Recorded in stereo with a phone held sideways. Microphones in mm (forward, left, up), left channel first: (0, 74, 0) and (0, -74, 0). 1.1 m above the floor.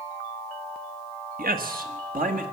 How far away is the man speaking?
About 1.2 m.